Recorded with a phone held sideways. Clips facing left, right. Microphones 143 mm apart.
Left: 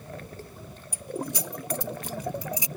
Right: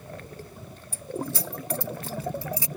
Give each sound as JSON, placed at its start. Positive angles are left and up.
{"t": 0.9, "sound": "keys jangling", "side_deg": 20}